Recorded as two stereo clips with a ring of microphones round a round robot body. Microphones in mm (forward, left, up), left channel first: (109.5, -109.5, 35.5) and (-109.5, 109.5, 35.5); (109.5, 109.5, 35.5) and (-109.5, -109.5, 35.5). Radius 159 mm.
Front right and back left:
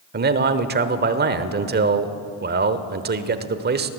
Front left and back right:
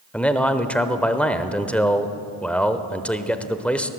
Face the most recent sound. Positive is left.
turn(degrees=130)